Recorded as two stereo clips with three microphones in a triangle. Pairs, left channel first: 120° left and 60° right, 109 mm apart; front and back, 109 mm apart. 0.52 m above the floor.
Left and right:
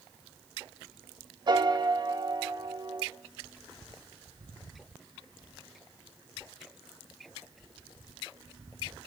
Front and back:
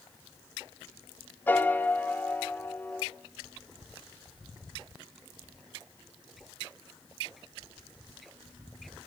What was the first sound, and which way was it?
A piano, 65° right.